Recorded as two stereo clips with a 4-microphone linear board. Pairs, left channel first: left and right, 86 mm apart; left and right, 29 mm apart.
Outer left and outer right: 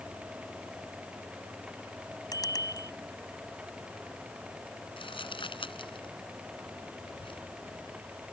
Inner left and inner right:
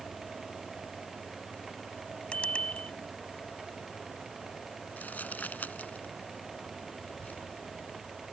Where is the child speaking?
70° left (ahead or behind).